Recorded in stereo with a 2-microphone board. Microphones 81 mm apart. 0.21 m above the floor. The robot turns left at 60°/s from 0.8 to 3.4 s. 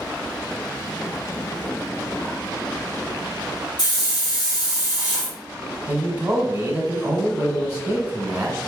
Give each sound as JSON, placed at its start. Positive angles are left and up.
{"t": 3.8, "sound": "a hiss", "side_deg": 55, "distance_m": 2.5}
{"t": 5.9, "sound": "a man speaking", "side_deg": -20, "distance_m": 1.1}